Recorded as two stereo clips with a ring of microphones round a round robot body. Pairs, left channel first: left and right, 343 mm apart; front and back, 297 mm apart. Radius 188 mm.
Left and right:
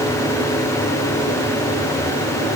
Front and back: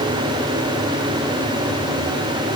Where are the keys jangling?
No keys jangling in this recording.